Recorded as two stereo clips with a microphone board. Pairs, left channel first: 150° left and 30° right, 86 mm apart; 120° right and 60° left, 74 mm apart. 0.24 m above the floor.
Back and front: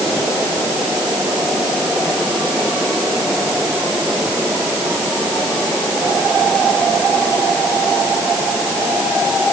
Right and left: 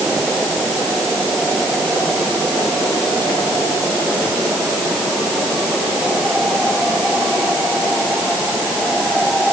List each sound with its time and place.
Only background noise.